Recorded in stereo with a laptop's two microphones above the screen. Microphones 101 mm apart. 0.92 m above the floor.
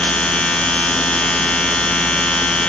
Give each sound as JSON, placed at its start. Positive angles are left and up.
{"t": 0.0, "sound": "a machine running", "side_deg": 10, "distance_m": 1.0}